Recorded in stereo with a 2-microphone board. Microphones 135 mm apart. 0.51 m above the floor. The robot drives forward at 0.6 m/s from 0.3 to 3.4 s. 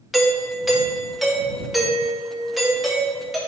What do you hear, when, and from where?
0.1 s a doorbell: centre (ahead or behind), 1.3 m